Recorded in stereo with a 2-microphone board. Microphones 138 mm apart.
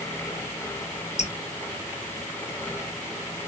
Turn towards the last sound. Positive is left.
turn(degrees=55)  # may be behind; listen again after turning